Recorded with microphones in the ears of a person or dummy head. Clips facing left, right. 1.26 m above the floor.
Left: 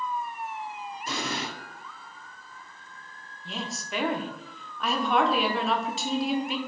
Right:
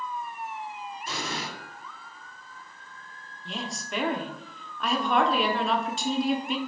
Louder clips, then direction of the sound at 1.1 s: Left 3 dB; 70° left (ahead or behind).